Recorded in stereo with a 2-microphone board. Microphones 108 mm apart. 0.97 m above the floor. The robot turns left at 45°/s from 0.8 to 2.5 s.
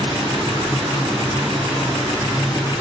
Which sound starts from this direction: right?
Running water, at 0.0 s.